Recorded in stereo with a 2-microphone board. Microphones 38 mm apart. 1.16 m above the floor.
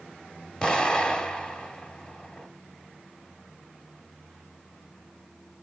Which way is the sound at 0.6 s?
20° left (ahead or behind).